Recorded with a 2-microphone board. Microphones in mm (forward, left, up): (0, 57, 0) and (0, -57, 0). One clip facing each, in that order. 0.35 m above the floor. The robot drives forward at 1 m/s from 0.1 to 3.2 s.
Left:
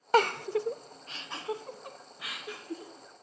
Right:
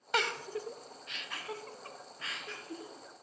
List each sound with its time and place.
0.1 s a giggle: 40° left (ahead or behind), 0.6 m; by 2.9 s 10° left (ahead or behind), 2.5 m